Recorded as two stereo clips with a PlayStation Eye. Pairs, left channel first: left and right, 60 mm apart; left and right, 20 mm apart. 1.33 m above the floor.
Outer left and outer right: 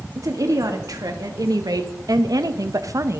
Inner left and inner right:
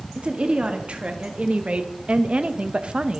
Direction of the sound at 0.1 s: 65° right (ahead or behind).